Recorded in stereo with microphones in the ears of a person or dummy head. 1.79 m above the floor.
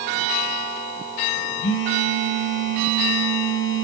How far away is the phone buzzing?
About 1.2 m.